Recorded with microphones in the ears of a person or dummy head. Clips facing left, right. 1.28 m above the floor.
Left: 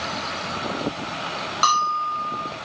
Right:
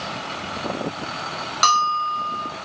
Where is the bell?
30° right (ahead or behind), 2 m.